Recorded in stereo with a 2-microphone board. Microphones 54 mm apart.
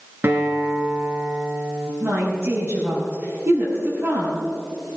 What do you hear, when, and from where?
0.2 s a guitar: 40° right (ahead or behind), 2.5 m
2.0 s a woman speaking: 55° right (ahead or behind), 5.5 m